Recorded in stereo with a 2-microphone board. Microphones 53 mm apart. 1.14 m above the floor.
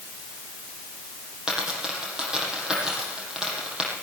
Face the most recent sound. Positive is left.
turn(degrees=-10)  # may be behind; listen again after turning